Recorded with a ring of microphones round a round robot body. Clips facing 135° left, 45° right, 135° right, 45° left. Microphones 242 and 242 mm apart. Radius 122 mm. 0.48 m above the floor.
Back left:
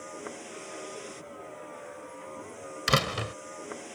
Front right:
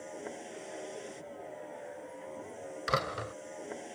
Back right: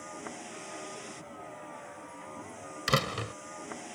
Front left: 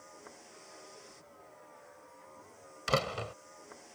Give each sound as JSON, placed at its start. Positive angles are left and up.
{"t": 0.0, "sound": "a vehicle", "azimuth_deg": -145}
{"t": 2.9, "sound": "a door slam", "azimuth_deg": 165}